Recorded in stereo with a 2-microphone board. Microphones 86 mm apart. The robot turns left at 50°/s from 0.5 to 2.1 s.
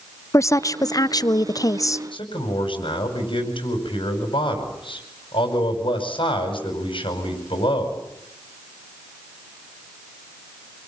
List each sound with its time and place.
0.3 s a woman speaking: 125° left, 0.6 m; by 2.0 s 50° left, 0.6 m
2.1 s a man speaking: 80° left, 5.5 m